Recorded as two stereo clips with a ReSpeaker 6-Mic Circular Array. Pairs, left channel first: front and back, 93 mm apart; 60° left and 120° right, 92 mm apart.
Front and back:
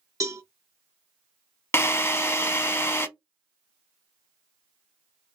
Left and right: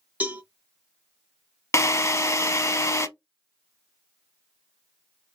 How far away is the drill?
About 0.6 m.